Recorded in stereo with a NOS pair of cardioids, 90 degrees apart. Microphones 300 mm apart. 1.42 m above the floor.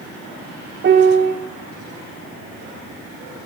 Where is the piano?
35° right, 1.2 m.